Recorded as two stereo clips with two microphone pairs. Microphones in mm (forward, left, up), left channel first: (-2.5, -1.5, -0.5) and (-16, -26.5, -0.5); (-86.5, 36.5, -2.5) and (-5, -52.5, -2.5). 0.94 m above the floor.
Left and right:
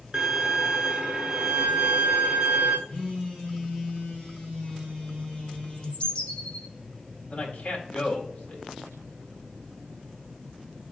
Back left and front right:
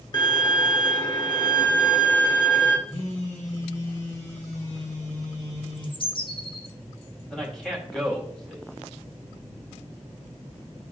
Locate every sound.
0.1 s a violin: 175° right, 1.1 m
2.9 s a phone buzzing: 125° left, 3.5 m
5.7 s a bird: 105° left, 0.7 m
7.3 s a man speaking: 50° left, 1.9 m